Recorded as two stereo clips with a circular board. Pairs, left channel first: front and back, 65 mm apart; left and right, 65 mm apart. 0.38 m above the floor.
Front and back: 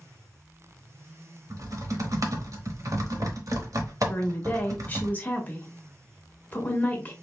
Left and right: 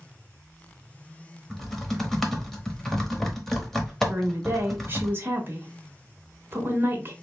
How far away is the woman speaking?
About 1.1 m.